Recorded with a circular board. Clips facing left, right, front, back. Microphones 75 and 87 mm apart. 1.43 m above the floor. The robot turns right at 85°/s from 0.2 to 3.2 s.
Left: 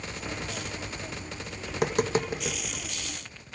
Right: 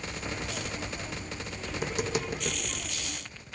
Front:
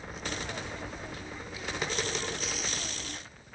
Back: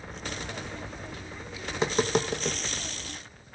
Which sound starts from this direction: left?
Tapping, at 1.7 s.